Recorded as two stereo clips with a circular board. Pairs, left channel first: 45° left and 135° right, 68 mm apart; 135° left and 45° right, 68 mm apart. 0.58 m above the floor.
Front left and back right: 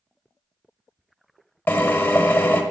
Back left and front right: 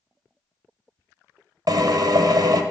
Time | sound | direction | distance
1.7 | a drill | 15° right | 0.9 m